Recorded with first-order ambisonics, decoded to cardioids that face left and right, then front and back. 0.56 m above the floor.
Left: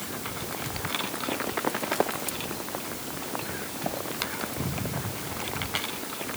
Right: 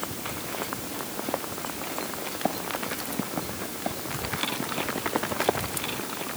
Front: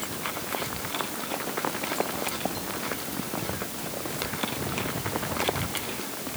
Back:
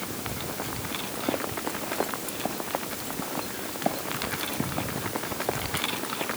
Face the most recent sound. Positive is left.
No sound to turn to.